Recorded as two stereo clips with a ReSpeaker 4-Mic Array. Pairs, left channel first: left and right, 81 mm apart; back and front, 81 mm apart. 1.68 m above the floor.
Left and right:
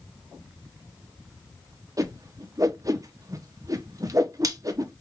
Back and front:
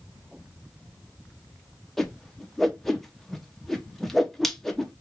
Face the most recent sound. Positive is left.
turn(degrees=-95)